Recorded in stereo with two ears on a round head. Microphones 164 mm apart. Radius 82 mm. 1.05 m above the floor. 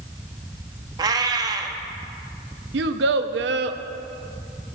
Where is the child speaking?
70° right (ahead or behind), 0.6 m.